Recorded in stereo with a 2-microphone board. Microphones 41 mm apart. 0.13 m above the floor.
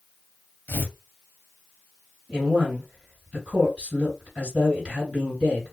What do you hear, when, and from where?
0.7 s tearing paper: 50° left (ahead or behind), 0.7 m
2.3 s a man speaking: 20° right (ahead or behind), 1.9 m